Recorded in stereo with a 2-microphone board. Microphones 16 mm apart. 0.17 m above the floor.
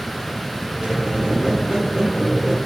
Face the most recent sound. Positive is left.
turn(degrees=-55)  # may be behind; listen again after turning